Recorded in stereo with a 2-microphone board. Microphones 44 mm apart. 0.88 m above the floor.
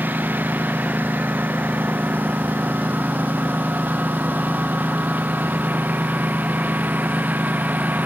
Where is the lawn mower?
45° right (ahead or behind); by 8.1 s 40° right (ahead or behind).